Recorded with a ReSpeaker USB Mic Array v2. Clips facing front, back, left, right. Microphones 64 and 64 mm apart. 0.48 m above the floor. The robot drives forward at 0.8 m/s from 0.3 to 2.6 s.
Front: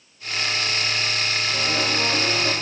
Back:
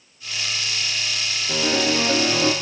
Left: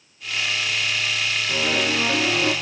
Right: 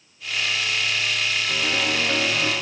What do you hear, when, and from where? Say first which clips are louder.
1.5 s a piano: back 6 dB, left 3 dB; 175° left, 6.5 m